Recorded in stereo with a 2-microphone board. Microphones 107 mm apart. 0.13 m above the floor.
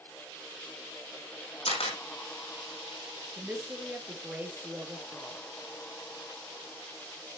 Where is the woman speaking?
20° right (ahead or behind), 3 m.